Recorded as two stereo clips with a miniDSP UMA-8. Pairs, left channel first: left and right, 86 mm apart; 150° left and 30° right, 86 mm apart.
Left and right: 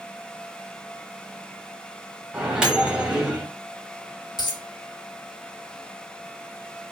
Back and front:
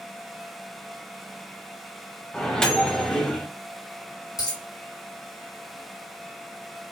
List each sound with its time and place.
2.3 s a microwave: 150° right, 0.8 m
4.4 s a dropped coin: 115° left, 1.1 m